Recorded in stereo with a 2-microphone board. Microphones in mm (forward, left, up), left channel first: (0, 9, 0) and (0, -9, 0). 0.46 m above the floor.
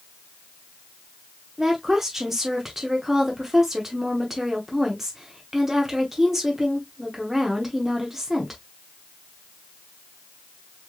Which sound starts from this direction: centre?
A woman speaking, at 1.6 s.